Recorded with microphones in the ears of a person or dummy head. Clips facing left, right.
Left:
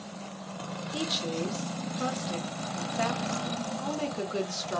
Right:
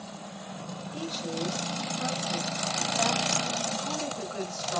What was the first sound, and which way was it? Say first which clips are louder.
A woman speaking: left 2 dB; 40° left (ahead or behind).